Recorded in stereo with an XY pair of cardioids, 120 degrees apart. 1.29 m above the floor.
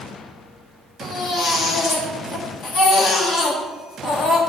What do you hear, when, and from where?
1.0 s a baby crying: 60° left, 1.7 m